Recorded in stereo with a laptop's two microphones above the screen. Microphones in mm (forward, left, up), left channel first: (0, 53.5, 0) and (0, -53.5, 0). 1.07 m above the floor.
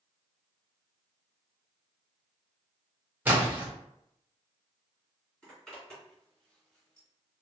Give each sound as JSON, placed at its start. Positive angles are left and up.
{"t": 3.2, "sound": "a splash", "side_deg": -15, "distance_m": 0.8}
{"t": 5.4, "sound": "a zipper", "side_deg": 5, "distance_m": 1.7}